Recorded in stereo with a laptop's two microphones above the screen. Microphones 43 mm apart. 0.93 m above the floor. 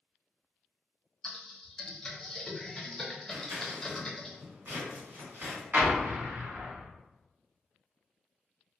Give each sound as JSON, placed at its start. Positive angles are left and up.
{"t": 1.2, "sound": "typing on a keyboard", "side_deg": 10, "distance_m": 0.8}
{"t": 3.3, "sound": "scissors", "side_deg": -65, "distance_m": 1.9}
{"t": 5.7, "sound": "an explosion", "side_deg": -50, "distance_m": 0.8}